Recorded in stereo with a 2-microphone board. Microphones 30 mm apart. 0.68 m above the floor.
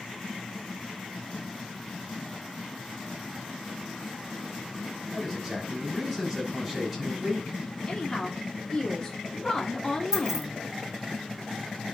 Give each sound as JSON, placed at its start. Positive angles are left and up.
{"t": 5.1, "sound": "a man speaking", "side_deg": 0, "distance_m": 5.5}
{"t": 7.9, "sound": "a woman speaking", "side_deg": 20, "distance_m": 1.5}
{"t": 10.1, "sound": "keys jangling", "side_deg": -15, "distance_m": 1.6}